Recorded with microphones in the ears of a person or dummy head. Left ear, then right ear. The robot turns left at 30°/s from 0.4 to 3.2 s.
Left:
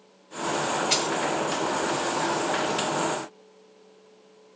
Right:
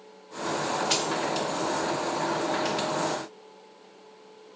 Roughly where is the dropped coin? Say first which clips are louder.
Left 2 dB; centre.